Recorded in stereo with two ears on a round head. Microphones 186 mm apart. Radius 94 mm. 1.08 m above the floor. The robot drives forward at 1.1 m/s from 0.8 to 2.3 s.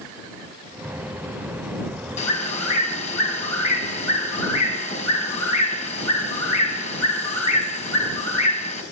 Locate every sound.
2.2 s a bird: 35° left (ahead or behind), 4 m